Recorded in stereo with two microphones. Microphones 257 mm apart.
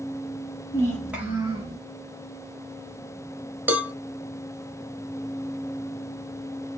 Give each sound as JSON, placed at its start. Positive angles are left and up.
{"t": 0.7, "sound": "a child speaking", "side_deg": 20, "distance_m": 1.1}
{"t": 3.7, "sound": "a cowbell", "side_deg": -5, "distance_m": 0.9}